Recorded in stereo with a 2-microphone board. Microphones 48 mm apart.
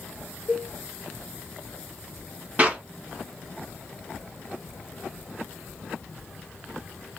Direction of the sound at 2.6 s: 30° right (ahead or behind).